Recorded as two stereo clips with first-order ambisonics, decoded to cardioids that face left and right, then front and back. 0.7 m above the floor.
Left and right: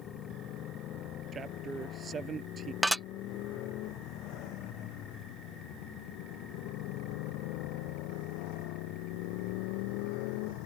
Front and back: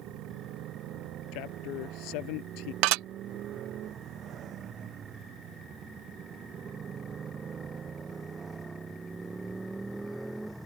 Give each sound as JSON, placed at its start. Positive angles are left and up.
{"t": 0.0, "sound": "a motorcycle", "azimuth_deg": 140}
{"t": 1.3, "sound": "a man speaking", "azimuth_deg": -20}
{"t": 2.8, "sound": "dishes clattering", "azimuth_deg": 180}